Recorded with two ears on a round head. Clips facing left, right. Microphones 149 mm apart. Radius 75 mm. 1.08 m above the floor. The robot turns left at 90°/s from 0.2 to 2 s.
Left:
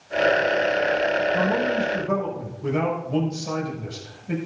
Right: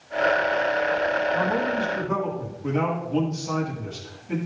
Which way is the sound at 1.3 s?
140° left.